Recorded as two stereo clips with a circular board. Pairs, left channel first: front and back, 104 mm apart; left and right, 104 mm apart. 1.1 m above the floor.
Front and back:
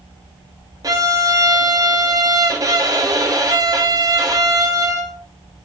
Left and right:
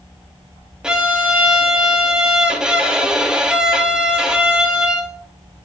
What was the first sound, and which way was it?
A violin, 165° right.